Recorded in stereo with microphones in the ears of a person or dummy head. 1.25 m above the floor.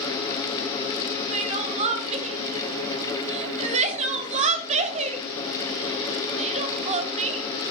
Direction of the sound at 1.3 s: 35° right (ahead or behind).